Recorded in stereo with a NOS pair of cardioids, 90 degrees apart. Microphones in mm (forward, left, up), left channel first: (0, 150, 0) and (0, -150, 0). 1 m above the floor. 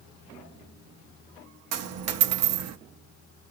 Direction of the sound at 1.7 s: 60° right.